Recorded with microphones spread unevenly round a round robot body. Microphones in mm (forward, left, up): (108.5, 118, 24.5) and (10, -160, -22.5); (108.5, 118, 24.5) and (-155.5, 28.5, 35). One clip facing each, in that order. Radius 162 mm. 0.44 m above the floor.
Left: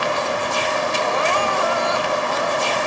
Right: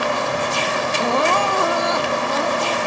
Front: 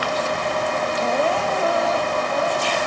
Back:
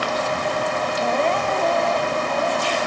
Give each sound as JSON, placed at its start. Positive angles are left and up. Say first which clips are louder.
{"t": 1.0, "sound": "crying", "louder": "right 5 dB, even", "azimuth_deg": -70}